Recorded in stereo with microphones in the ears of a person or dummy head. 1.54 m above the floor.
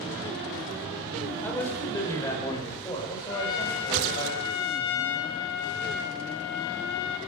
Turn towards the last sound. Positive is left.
turn(degrees=60)  # may be behind; listen again after turning